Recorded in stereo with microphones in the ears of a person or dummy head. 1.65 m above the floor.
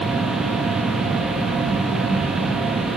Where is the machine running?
5° right (ahead or behind), 1.1 m.